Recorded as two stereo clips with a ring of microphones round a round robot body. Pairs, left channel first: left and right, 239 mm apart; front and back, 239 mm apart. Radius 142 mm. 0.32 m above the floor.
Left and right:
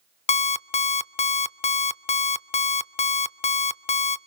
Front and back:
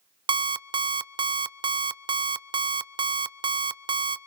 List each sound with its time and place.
0.3 s an alarm clock: 125° left, 0.6 m